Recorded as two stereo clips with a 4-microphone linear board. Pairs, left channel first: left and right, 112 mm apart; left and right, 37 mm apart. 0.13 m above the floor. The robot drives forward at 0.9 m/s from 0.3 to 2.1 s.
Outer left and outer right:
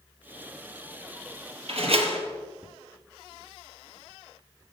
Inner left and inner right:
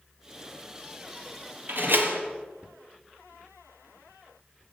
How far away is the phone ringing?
No phone ringing in this recording.